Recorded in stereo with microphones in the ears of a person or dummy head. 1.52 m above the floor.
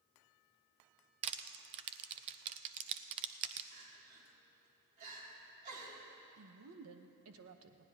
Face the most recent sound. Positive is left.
turn(degrees=-80)